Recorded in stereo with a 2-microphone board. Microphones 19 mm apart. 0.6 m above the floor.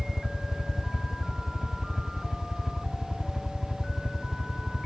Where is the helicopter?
5° left (ahead or behind); by 4.9 s 5° right (ahead or behind).